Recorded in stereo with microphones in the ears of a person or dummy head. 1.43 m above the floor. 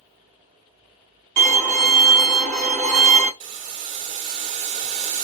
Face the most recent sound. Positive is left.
turn(degrees=-40)  # may be behind; listen again after turning